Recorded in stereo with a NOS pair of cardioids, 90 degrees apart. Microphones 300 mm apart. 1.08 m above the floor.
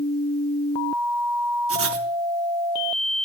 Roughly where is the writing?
Ahead right.